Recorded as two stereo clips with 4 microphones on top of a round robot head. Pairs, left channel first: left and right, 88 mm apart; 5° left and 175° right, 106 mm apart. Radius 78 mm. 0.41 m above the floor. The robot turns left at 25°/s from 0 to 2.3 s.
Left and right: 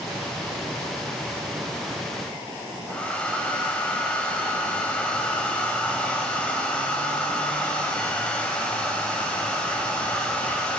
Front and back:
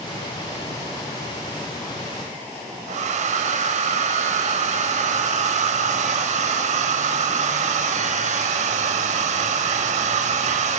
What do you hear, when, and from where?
2.9 s a hair dryer: 170° left, 0.5 m